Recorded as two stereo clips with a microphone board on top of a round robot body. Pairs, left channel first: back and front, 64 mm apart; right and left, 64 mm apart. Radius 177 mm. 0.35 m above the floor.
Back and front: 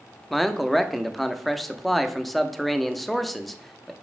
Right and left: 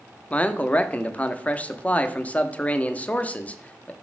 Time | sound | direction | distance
0.3 | a man speaking | 95° right | 0.8 m